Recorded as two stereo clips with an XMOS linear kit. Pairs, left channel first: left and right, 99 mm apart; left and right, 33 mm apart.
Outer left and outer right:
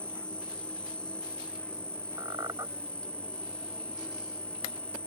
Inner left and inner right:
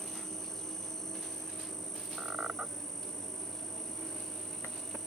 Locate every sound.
0.0 s an insect: 10° left (ahead or behind)
2.2 s a squeak: 35° right (ahead or behind)